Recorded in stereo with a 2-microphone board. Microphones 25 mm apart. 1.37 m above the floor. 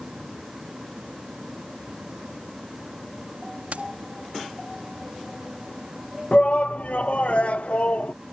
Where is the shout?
60° left (ahead or behind).